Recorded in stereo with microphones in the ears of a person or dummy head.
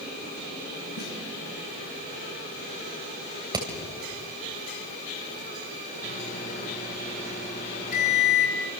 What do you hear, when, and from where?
1.0 s a snare drum: 55° left (ahead or behind), 7.5 m
3.5 s hammering: 20° right (ahead or behind), 3.5 m
6.0 s a microwave: 40° left (ahead or behind), 6.5 m